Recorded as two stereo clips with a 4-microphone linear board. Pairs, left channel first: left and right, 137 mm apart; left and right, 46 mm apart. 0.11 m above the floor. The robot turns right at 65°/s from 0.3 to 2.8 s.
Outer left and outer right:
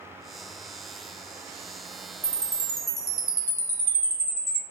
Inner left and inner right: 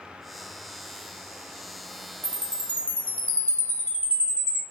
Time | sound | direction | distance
2.2 | a chime | 25° left (ahead or behind) | 0.7 m